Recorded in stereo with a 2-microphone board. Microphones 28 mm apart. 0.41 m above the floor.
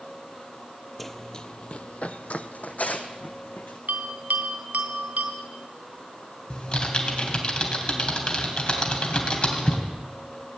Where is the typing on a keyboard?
45° left (ahead or behind), 3 m.